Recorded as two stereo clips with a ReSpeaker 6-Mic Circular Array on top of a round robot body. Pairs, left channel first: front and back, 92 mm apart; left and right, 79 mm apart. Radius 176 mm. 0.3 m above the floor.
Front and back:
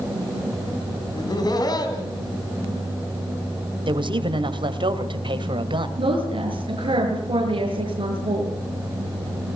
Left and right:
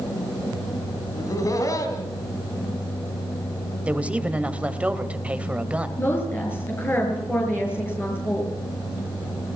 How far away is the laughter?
About 3.5 m.